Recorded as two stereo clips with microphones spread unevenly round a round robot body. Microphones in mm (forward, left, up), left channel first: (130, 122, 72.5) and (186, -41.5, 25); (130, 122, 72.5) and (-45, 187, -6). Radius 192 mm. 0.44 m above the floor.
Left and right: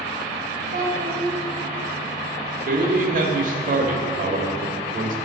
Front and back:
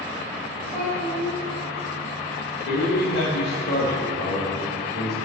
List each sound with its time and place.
0.7 s a child speaking: 95° right, 1.4 m
2.6 s a man speaking: 80° right, 1.3 m